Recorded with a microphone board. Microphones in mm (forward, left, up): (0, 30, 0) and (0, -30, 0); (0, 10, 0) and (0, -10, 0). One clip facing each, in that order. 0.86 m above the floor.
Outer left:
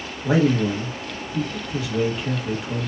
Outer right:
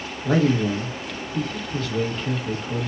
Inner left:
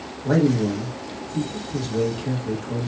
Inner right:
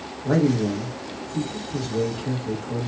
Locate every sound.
0.2 s a man speaking: 10° left (ahead or behind), 1.5 m